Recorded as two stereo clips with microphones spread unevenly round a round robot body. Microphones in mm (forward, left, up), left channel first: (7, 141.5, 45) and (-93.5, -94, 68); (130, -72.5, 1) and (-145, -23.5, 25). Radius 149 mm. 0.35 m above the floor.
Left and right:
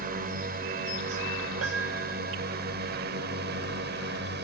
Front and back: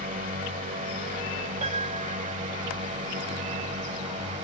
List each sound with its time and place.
0.0 s a drone: 145° right; by 4.4 s 135° right
1.6 s a piano: 130° right